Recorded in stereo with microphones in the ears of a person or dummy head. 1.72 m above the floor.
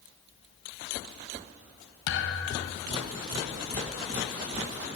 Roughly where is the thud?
Left.